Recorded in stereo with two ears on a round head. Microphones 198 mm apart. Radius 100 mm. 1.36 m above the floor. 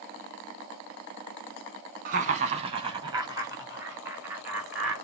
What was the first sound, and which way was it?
Laughter, 35° right (ahead or behind).